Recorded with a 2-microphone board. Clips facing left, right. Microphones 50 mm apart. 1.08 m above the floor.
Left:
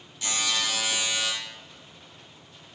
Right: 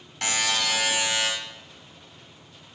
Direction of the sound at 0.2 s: 75° right (ahead or behind).